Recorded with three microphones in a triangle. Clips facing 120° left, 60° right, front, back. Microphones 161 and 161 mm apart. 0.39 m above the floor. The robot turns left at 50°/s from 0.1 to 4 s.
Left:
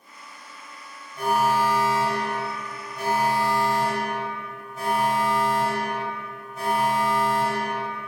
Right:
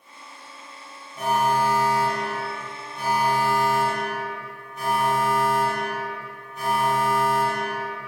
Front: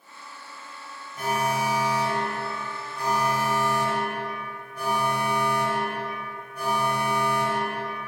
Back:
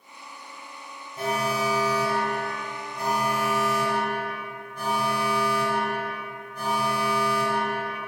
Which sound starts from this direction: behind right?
An alarm, at 1.2 s.